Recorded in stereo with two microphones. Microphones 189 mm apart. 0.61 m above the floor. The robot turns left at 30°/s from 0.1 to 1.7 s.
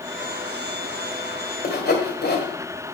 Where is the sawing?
55° left (ahead or behind), 1.8 m; by 2.5 s 60° left (ahead or behind), 1.8 m.